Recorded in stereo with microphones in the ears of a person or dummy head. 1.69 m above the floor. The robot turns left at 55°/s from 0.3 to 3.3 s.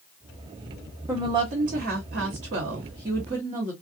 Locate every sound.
1.1 s a woman speaking: 25° right, 0.9 m; by 3.7 s 150° right, 0.9 m